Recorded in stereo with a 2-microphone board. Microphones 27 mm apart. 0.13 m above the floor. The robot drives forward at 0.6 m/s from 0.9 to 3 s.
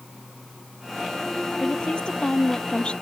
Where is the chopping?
No chopping in this recording.